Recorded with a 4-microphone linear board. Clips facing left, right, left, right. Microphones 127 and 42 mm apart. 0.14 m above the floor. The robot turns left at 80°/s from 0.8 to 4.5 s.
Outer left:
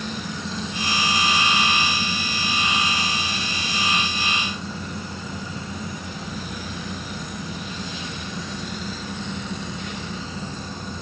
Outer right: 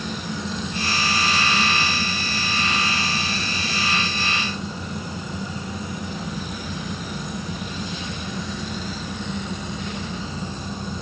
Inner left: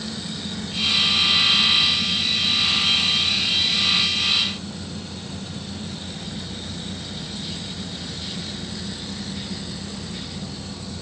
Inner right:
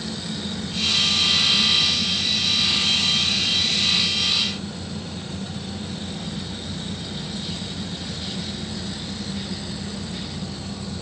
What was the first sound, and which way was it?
Only background noise.